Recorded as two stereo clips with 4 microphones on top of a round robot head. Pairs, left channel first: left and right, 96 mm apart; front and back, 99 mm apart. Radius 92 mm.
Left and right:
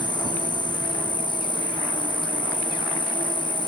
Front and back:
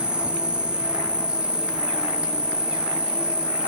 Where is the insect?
100° left, 3 m.